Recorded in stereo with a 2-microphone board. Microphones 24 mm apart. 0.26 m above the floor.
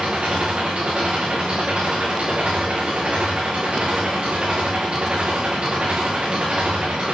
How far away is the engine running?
About 7 m.